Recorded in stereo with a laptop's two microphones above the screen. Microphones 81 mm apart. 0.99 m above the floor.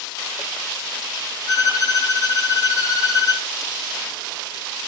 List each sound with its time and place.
1.5 s a violin: 45° left (ahead or behind), 1.6 m